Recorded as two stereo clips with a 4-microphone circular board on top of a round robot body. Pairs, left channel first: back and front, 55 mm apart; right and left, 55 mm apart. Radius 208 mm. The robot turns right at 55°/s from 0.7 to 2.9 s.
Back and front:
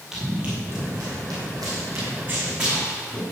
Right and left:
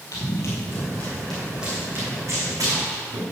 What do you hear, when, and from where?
0.1 s running footsteps: 80° right, 1.6 m; by 3.2 s 95° left, 5.5 m